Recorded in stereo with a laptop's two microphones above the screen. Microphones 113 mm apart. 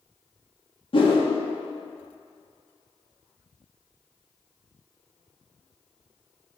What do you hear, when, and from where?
0.9 s a whoosh: 50° left (ahead or behind), 2 m